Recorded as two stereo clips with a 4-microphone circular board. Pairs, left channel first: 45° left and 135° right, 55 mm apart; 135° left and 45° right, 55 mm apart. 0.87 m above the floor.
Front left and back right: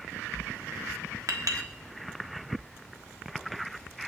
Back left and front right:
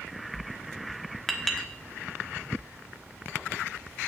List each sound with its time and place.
1.3 s a clink: 140° right, 1.3 m